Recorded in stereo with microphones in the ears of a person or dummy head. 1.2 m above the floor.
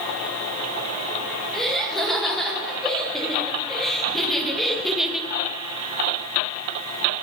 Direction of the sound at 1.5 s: Centre (ahead or behind).